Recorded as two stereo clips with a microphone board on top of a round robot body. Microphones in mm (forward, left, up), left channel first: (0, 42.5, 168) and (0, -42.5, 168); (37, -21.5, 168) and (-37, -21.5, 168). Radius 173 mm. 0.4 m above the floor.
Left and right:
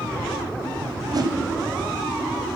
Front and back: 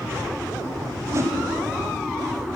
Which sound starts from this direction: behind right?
A whoosh, at 1.1 s.